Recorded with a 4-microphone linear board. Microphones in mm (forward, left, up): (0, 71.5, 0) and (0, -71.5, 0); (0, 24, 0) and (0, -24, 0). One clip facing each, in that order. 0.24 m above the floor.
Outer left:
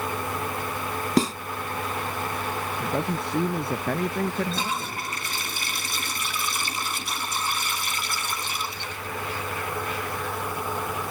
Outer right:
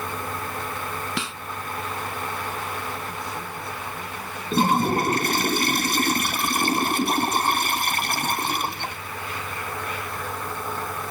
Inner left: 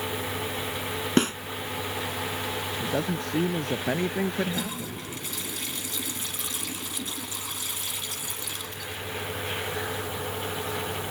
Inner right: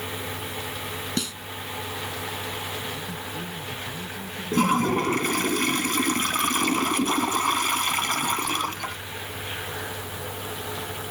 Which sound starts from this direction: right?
A toilet flushing, at 4.5 s.